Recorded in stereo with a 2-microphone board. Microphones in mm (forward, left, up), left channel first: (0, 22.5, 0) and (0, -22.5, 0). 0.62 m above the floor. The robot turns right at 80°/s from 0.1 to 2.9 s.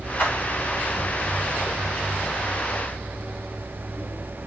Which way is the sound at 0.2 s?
50° left (ahead or behind).